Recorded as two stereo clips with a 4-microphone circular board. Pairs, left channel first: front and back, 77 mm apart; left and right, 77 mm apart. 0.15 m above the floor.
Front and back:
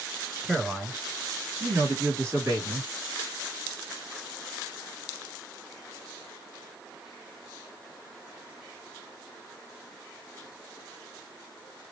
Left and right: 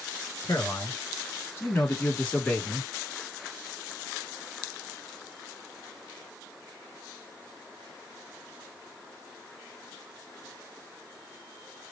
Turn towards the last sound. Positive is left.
turn(degrees=165)